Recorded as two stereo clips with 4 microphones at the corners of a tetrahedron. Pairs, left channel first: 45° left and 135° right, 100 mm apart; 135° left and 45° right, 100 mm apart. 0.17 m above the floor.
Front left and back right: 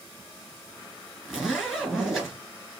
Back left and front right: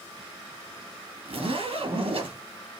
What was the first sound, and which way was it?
A zipper, 50° right.